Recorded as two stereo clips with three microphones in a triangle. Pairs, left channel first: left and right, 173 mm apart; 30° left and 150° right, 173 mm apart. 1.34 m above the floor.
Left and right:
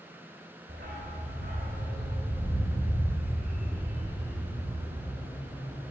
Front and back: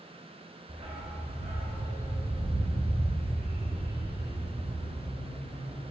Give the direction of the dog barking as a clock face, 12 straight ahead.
3 o'clock.